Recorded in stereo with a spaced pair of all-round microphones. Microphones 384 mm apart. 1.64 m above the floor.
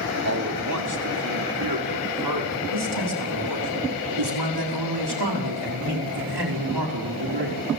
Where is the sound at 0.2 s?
40° right (ahead or behind), 3 m; by 3.7 s 85° right, 4.5 m.